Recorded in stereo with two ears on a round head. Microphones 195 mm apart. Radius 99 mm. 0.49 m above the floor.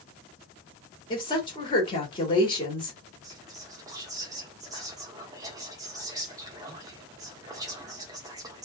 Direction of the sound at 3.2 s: 15° right (ahead or behind).